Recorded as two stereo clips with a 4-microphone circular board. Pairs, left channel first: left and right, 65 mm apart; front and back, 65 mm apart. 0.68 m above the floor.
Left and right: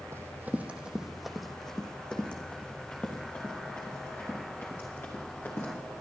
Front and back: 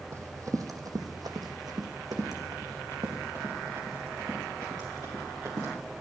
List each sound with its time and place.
0.1 s running footsteps: 140° right, 1.4 m; by 5.7 s 145° left, 5.5 m